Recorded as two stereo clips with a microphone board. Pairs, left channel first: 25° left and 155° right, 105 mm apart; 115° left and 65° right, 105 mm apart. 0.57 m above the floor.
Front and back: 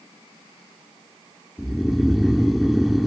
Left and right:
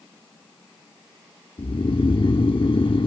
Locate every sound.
1.6 s snoring: 115° left